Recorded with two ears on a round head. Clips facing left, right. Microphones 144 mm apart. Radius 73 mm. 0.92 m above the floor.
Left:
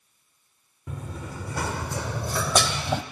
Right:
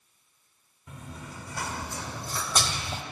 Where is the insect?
No insect in this recording.